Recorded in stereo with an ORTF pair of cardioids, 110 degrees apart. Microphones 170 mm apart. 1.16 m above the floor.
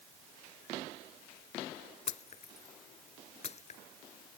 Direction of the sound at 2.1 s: 40° left.